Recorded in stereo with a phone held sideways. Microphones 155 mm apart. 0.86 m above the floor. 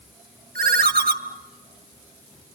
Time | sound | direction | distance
0.6 | a ringtone | 75° right (ahead or behind) | 1.1 m